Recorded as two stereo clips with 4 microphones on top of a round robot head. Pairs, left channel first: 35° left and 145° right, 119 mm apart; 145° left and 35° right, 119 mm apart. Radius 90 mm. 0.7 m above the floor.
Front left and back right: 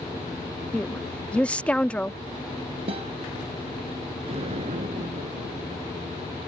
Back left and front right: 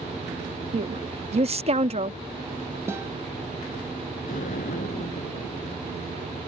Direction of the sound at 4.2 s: 170° left.